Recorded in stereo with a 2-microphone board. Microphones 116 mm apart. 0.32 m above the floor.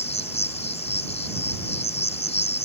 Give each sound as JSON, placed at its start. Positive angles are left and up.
{"t": 0.0, "sound": "an insect", "side_deg": 65}